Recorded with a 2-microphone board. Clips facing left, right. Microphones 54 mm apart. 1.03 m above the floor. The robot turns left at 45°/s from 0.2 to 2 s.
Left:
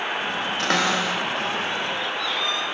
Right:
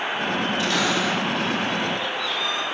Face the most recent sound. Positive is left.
turn(degrees=5)  # may be behind; listen again after turning